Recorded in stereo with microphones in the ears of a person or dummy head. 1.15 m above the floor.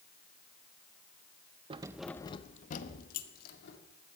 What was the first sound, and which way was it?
Keys jangling, 30° right (ahead or behind).